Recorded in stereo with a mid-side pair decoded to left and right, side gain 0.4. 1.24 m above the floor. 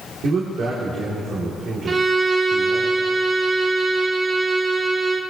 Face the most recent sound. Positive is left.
turn(degrees=-50)